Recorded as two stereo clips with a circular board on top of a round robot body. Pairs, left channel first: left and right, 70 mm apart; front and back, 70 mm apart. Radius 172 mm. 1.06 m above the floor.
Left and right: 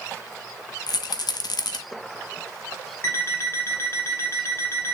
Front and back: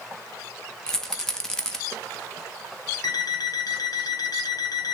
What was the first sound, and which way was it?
A rattle, 80° left.